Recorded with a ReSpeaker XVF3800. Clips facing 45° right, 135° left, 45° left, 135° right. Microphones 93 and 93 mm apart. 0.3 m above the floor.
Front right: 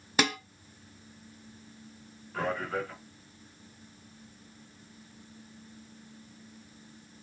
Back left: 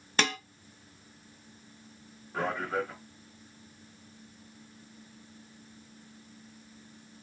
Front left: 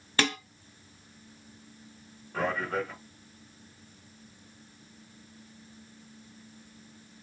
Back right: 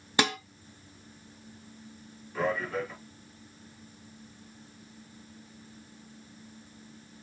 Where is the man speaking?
70° left, 3 m.